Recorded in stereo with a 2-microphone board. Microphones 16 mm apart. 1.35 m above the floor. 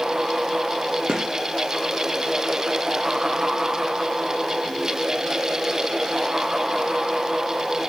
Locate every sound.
1.1 s a gunshot: 65° right (ahead or behind), 1.0 m